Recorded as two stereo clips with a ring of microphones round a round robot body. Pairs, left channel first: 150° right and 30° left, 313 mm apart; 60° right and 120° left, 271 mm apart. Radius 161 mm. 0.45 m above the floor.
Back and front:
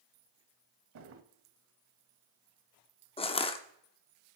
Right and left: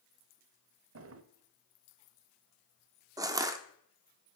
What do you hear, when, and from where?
0.9 s a drawer: 80° left, 0.7 m
3.2 s crushing: 175° left, 0.7 m